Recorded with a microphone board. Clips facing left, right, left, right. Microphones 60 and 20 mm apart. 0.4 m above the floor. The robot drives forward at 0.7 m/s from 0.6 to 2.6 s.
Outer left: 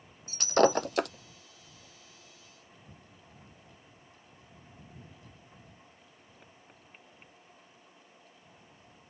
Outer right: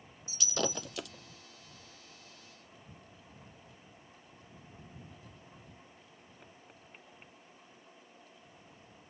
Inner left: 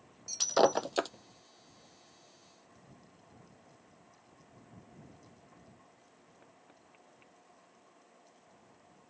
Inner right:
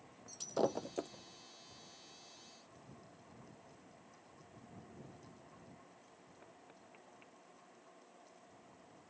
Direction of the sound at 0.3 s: 50° left (ahead or behind).